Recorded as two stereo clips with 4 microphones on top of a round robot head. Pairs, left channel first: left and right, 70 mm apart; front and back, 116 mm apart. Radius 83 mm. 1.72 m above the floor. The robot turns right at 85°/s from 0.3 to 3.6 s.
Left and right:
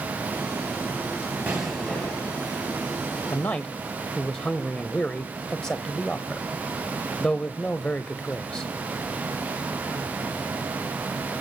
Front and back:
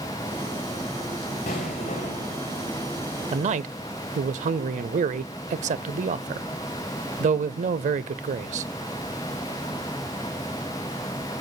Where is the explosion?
25° right, 7.5 m; by 2.4 s 60° left, 7.5 m.